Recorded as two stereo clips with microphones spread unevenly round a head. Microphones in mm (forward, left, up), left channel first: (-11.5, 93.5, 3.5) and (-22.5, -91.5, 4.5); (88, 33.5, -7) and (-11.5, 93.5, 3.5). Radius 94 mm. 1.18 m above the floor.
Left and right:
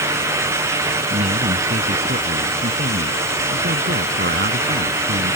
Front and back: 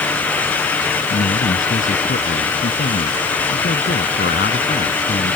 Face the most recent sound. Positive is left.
turn(degrees=-50)